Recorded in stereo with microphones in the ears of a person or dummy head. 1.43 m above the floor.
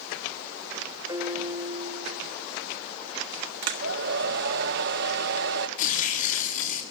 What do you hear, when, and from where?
1.1 s a piano: 15° right (ahead or behind), 1.6 m
3.6 s a hair dryer: 60° right (ahead or behind), 1.6 m
5.8 s tearing paper: 45° left (ahead or behind), 7.5 m